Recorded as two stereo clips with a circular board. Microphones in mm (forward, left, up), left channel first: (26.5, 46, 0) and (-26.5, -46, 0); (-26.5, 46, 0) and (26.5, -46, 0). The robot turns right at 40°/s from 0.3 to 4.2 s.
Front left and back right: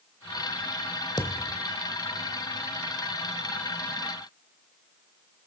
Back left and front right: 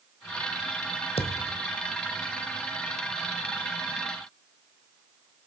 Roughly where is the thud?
Left.